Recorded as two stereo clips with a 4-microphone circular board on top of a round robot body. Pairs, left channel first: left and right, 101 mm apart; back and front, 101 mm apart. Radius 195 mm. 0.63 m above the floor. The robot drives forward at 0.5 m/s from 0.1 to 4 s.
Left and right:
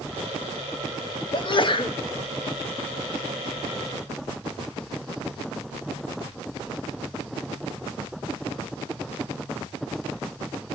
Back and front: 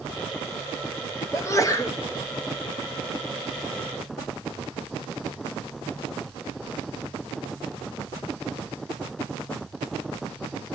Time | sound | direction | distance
1.3 | a sneeze | 120° left | 3 m